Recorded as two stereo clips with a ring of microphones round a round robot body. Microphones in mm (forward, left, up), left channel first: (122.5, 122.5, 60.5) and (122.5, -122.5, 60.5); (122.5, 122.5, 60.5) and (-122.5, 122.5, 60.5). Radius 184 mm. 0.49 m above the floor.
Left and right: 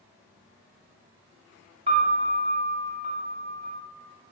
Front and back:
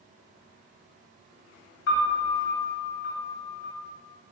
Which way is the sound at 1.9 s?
25° right.